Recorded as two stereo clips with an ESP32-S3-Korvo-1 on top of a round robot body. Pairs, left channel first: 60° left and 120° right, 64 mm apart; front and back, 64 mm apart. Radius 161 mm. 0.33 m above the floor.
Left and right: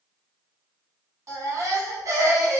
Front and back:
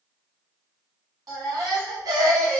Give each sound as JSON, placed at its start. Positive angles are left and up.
{"t": 1.3, "sound": "a baby crying", "azimuth_deg": -160, "distance_m": 1.3}